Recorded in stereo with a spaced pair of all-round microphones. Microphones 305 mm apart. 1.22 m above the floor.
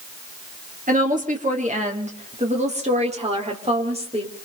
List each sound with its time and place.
0.9 s a woman speaking: 25° right (ahead or behind), 3.5 m; by 4.3 s 20° right (ahead or behind), 5 m